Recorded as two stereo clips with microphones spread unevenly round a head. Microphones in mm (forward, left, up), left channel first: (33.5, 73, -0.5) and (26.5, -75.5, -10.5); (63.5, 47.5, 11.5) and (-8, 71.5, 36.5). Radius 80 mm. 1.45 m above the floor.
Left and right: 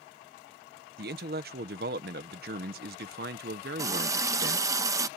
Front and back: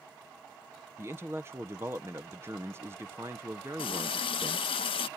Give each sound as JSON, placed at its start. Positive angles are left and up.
{"t": 1.0, "sound": "a man speaking", "azimuth_deg": -125}
{"t": 3.8, "sound": "a running tap", "azimuth_deg": -25}